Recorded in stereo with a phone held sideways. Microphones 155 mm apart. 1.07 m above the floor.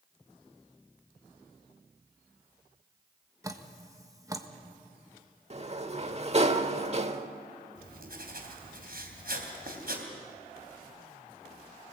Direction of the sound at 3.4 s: 20° right (ahead or behind).